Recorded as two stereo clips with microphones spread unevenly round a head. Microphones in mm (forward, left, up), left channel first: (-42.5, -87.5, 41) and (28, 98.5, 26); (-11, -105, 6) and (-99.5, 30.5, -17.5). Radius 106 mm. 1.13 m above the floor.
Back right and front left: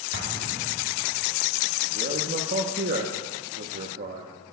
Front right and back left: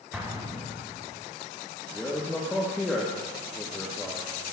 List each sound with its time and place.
0.1 s an explosion: 40° left, 1.6 m
1.9 s a man speaking: 30° left, 1.1 m